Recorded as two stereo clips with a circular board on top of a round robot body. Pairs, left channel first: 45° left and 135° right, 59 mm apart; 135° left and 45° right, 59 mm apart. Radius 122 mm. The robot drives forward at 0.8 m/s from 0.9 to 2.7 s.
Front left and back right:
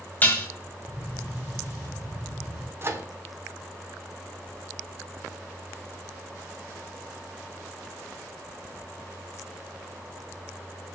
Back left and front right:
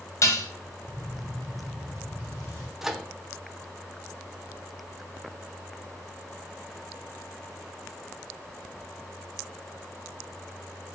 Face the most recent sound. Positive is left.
turn(degrees=-125)